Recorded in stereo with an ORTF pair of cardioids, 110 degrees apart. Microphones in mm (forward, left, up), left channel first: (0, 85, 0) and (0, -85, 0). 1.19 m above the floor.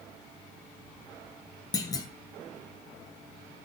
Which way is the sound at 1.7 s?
20° left.